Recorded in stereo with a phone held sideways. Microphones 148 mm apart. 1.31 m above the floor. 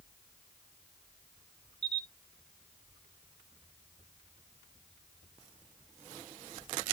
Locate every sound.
1.8 s a camera shutter: 30° right (ahead or behind), 1.7 m